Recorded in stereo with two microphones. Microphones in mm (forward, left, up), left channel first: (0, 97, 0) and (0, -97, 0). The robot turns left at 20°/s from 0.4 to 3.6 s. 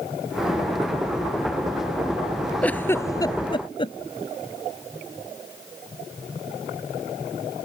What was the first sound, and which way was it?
A giggle, 5° left (ahead or behind).